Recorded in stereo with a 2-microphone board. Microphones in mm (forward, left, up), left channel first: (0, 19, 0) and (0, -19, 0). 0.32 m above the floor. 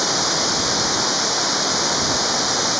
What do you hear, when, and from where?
0.0 s running water: 5° right (ahead or behind)